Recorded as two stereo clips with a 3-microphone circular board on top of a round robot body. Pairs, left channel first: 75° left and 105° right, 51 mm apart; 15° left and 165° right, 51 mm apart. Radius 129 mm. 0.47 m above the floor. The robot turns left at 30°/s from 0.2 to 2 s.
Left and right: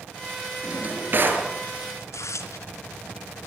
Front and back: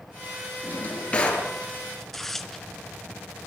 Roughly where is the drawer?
Ahead right.